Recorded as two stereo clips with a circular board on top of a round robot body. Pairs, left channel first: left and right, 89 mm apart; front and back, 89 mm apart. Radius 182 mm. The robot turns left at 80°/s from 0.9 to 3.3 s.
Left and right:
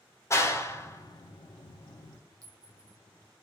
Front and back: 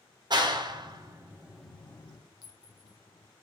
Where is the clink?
40° right, 0.9 m; by 3.0 s 85° right, 0.9 m.